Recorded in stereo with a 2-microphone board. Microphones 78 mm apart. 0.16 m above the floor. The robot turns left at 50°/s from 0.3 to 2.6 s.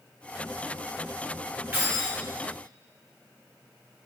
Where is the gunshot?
No gunshot in this recording.